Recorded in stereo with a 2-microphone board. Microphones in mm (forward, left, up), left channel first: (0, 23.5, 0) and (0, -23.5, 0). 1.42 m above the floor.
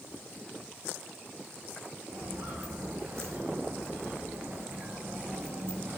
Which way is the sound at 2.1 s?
75° right (ahead or behind).